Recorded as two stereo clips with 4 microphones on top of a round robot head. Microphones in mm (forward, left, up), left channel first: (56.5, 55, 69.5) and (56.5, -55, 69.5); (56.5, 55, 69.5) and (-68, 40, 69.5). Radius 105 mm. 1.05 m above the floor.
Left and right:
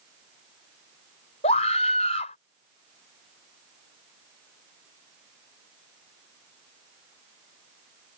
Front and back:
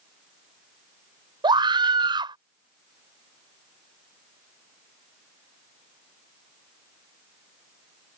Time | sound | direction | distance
1.4 | a scream | 135° left | ?